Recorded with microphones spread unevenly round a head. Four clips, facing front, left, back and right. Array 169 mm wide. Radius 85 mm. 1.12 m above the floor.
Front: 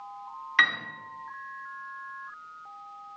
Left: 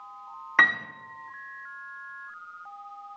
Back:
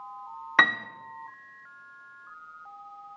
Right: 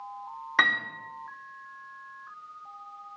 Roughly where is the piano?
Behind.